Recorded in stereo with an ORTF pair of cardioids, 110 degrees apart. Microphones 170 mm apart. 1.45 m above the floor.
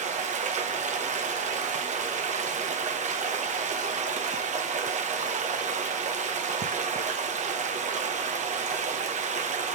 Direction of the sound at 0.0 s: 45° right.